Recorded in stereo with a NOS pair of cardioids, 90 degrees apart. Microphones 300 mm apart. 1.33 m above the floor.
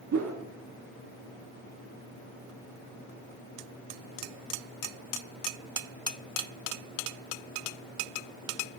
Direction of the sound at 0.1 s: 60° right.